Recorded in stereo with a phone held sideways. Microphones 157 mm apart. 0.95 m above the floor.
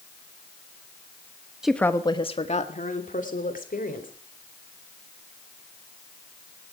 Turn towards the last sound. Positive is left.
turn(degrees=65)  # may be behind; listen again after turning